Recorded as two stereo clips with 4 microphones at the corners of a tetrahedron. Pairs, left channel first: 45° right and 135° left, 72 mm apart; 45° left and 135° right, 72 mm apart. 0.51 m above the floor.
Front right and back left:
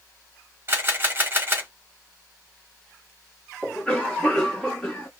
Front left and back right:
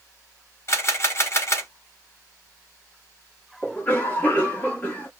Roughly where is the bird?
No bird in this recording.